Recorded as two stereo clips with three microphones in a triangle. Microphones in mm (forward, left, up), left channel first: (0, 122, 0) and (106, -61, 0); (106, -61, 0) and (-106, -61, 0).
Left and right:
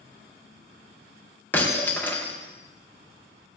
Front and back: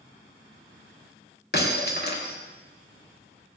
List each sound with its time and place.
1.5 s breaking glass: 40° left, 4.5 m